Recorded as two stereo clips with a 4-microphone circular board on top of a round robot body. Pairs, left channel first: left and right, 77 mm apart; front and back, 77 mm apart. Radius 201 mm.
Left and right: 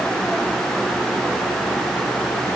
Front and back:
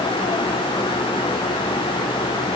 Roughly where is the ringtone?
No ringtone in this recording.